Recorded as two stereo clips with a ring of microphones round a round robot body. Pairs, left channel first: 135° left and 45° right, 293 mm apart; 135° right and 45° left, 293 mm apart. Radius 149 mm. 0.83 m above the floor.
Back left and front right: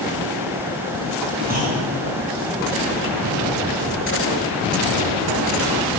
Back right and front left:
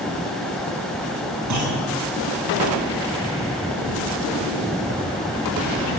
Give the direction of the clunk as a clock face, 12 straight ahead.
12 o'clock.